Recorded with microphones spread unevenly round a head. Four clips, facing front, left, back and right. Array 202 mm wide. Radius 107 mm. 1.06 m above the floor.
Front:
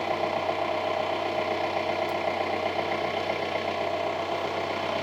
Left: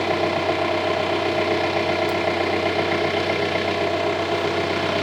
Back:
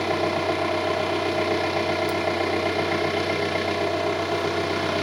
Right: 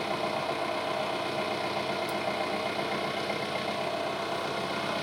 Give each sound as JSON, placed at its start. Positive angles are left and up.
{"t": 0.0, "sound": "an engine running", "azimuth_deg": 125, "distance_m": 1.2}